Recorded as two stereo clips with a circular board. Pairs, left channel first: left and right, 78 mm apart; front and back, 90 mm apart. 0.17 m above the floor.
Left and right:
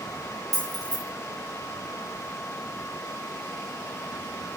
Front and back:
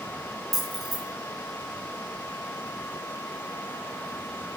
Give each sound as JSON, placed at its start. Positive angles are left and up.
{"t": 0.5, "sound": "keys jangling", "azimuth_deg": -90, "distance_m": 1.6}